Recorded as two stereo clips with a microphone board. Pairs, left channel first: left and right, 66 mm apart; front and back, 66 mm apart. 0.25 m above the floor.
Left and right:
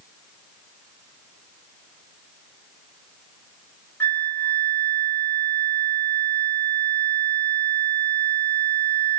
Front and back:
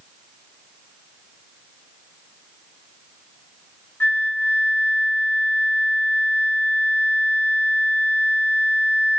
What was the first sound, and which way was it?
A flute, 40° left.